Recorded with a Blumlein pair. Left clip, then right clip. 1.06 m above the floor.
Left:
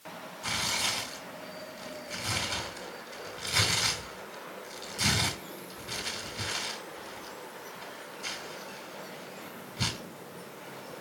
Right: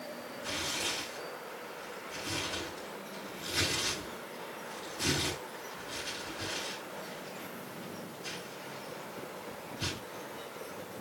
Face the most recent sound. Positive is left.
turn(degrees=45)